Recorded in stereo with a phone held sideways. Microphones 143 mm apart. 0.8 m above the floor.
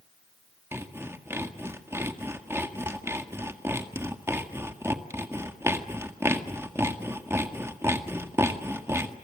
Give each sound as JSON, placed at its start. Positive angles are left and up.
{"t": 0.7, "sound": "sawing", "side_deg": -20, "distance_m": 1.8}